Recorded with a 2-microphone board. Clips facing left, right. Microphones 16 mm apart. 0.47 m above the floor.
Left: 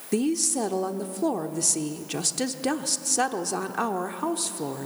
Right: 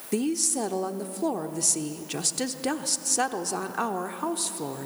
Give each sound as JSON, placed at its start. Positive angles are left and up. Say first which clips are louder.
{"t": 0.1, "sound": "a woman speaking", "louder": "left 2 dB", "side_deg": 5, "distance_m": 0.7}